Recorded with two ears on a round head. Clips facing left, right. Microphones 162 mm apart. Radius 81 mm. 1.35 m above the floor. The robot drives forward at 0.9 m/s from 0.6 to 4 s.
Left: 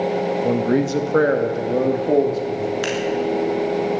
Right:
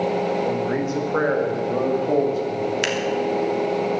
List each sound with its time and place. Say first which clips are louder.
0.4 s a man speaking: left 4 dB; 50° left (ahead or behind), 1.5 m; by 2.7 s 20° left (ahead or behind), 3 m
2.8 s scissors: left 1 dB; 30° right (ahead or behind), 3 m; by 2.9 s 25° right (ahead or behind), 3 m